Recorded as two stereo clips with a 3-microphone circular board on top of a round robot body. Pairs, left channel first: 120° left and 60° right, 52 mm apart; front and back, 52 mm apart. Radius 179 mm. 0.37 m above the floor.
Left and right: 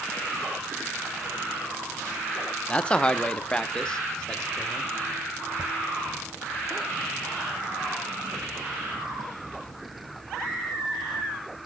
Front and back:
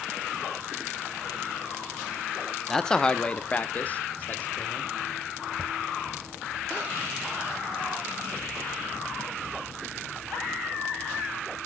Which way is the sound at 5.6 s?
90° right.